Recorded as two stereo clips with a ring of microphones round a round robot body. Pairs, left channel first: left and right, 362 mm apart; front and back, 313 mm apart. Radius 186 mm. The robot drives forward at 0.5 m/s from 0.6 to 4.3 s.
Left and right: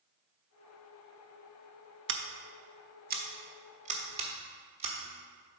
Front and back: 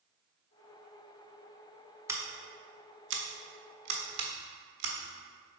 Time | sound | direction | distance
2.1 | scissors | 105° right | 0.8 m